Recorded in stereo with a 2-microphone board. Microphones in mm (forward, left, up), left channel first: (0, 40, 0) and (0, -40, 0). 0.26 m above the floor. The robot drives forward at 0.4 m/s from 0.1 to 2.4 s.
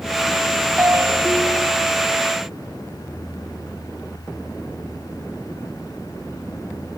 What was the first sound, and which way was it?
A ringtone, 35° right (ahead or behind).